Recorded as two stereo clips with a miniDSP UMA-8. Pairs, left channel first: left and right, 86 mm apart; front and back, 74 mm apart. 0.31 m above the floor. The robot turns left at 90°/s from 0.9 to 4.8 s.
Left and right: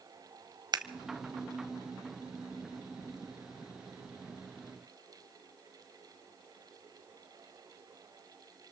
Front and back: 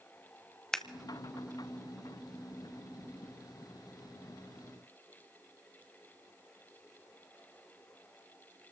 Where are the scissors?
85° right, 1.0 m.